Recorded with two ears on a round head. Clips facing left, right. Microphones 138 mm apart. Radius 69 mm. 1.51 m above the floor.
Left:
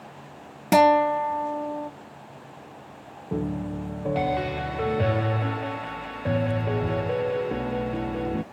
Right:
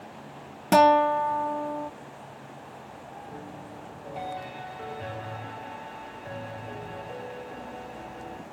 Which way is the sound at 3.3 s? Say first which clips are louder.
Left 12 dB; 70° left (ahead or behind).